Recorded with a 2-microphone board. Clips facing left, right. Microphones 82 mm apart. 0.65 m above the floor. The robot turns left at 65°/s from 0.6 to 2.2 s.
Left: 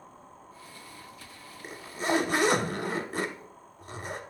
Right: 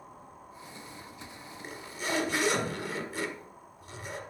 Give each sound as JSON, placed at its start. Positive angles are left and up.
{"t": 1.6, "sound": "a zipper", "azimuth_deg": 160, "distance_m": 1.0}